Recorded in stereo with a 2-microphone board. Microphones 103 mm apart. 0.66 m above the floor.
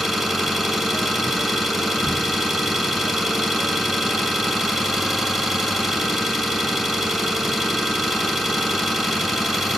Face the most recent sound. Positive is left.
turn(degrees=5)  # may be behind; listen again after turning